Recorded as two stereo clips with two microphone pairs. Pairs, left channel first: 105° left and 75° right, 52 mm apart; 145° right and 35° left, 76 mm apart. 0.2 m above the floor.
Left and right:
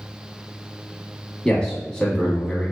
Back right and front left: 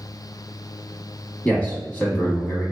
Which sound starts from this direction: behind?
A man speaking, at 1.4 s.